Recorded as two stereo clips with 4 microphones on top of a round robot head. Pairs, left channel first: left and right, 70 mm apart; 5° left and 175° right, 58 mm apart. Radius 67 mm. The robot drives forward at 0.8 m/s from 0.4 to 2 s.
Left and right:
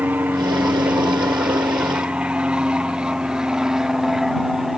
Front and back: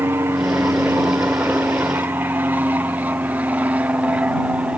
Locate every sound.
0.0 s an aircraft: 145° right; by 4.8 s 170° right